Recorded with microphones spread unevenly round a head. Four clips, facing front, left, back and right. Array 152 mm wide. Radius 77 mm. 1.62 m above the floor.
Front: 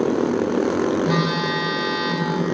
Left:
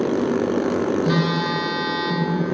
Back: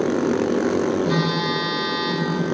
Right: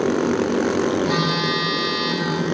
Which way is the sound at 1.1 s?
90° left.